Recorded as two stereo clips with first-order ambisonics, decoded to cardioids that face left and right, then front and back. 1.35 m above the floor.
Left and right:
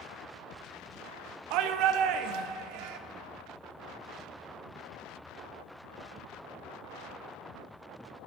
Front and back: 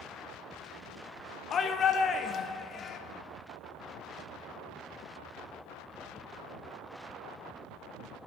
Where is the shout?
65° right, 0.7 m.